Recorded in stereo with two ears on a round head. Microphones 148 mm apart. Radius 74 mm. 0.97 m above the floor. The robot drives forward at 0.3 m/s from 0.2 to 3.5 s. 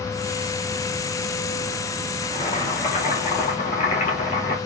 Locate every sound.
2.2 s boiling: 45° left (ahead or behind), 2.5 m; by 4.6 s 40° left (ahead or behind), 2.5 m